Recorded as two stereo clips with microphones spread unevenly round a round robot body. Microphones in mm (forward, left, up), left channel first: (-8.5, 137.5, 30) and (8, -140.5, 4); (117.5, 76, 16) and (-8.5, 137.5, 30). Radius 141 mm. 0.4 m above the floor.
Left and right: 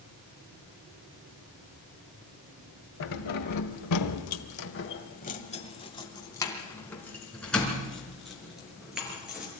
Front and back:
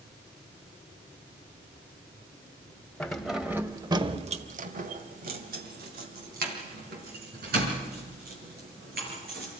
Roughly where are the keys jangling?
Ahead left.